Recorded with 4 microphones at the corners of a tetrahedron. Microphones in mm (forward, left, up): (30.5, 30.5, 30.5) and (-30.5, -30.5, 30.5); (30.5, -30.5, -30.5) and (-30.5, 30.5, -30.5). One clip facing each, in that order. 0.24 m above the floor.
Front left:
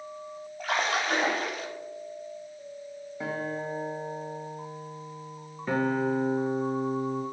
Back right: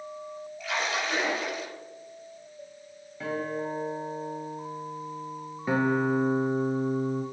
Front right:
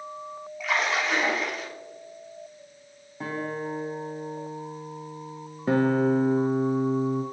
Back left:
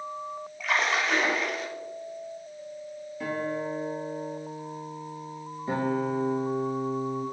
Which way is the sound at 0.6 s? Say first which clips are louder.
Front left 3 dB, even; 45° left.